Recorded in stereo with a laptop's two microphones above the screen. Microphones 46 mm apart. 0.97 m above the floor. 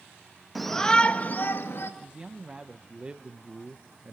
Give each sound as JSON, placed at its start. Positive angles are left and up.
{"t": 0.6, "sound": "a shout", "side_deg": 0, "distance_m": 1.4}
{"t": 2.0, "sound": "a man speaking", "side_deg": -25, "distance_m": 0.7}